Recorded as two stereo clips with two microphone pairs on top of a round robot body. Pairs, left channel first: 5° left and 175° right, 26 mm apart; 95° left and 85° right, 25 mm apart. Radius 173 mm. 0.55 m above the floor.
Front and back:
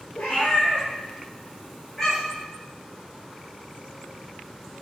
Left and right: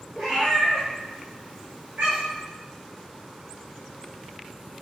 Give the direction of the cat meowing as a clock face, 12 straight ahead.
1 o'clock.